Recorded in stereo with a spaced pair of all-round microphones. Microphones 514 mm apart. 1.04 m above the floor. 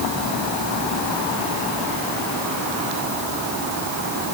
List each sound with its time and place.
Only background noise.